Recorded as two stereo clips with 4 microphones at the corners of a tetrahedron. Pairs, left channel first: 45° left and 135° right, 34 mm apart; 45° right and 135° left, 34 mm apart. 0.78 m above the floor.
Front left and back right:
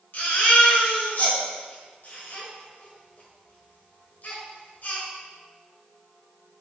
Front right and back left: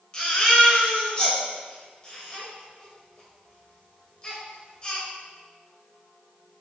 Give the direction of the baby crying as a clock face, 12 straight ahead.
11 o'clock.